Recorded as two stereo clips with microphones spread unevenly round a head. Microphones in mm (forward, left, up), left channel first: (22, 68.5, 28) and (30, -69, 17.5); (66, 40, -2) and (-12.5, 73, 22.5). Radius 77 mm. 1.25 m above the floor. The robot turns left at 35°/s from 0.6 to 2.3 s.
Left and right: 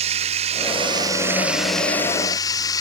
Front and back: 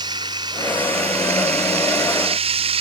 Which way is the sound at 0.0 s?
140° right.